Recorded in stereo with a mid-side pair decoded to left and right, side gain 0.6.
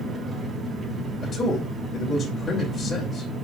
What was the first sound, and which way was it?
An engine running, 30° right.